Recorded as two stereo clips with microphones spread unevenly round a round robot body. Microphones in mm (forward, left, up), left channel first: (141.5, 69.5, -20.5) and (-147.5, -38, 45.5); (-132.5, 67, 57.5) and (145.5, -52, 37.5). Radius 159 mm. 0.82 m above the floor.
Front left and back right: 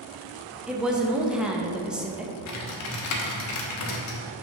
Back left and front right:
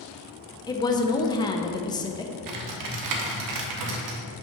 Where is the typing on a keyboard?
10° right, 0.9 m.